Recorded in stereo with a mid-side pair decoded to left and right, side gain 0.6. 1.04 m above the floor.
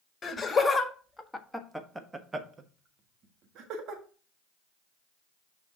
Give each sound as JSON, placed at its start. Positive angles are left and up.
{"t": 0.2, "sound": "laughter", "azimuth_deg": 25, "distance_m": 1.7}